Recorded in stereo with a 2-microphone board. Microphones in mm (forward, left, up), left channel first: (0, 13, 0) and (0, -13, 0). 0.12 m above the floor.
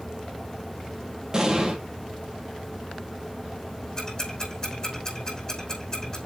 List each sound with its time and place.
1.3 s an explosion: 25° right (ahead or behind), 2.5 m
4.0 s ticking: 25° left (ahead or behind), 5 m